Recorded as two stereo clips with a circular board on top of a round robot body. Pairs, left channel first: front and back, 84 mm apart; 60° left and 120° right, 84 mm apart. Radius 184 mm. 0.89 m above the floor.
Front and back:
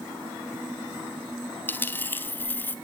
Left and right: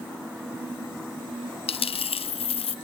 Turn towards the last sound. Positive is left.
turn(degrees=70)